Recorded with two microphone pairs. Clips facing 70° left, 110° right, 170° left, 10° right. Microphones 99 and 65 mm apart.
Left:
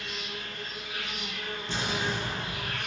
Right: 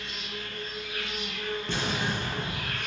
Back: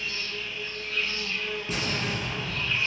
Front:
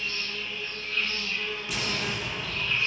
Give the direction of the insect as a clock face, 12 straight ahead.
8 o'clock.